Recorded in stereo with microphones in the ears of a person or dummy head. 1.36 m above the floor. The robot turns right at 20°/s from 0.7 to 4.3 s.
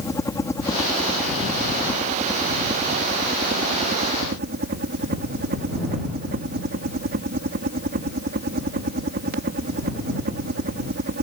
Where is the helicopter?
170° left; by 11.2 s 120° right.